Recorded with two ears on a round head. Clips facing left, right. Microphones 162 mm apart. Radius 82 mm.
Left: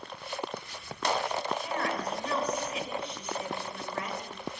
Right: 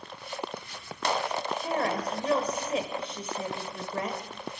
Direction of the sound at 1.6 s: 30° right (ahead or behind).